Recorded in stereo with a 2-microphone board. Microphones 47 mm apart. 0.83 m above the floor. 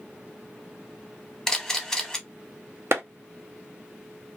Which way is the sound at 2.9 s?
60° right (ahead or behind).